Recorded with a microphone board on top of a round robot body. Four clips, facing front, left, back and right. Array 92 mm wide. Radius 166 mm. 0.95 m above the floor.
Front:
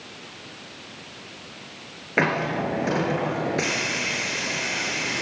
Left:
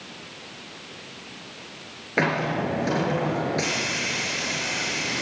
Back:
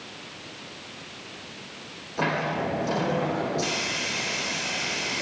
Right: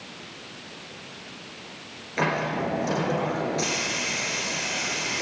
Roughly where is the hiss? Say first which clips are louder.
Left 2 dB, front 3 dB; ahead left.